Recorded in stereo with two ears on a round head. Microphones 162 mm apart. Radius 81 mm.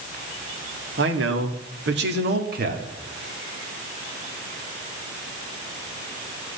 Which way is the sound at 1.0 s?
70° right (ahead or behind).